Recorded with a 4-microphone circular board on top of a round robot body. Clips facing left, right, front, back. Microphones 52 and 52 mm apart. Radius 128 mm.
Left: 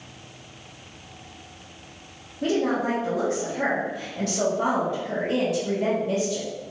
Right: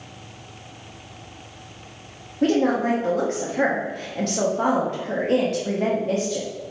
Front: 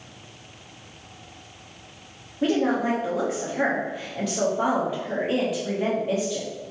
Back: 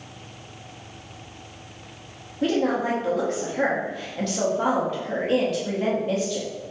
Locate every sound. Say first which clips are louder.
2.4 s a woman speaking: right 4 dB, even; 80° right, 0.9 m